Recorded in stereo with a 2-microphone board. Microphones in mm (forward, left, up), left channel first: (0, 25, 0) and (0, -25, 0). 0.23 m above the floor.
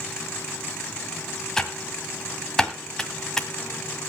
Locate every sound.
1.6 s typing on a keyboard: 10° left (ahead or behind), 1.6 m